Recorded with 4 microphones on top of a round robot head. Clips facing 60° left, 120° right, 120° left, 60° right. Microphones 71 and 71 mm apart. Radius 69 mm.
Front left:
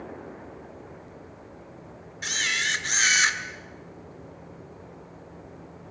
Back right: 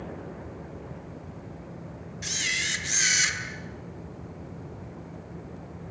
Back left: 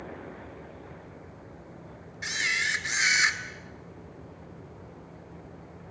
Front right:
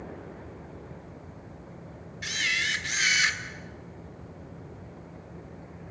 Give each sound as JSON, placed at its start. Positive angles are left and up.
{"t": 2.2, "sound": "a camera shutter", "azimuth_deg": 65, "distance_m": 2.0}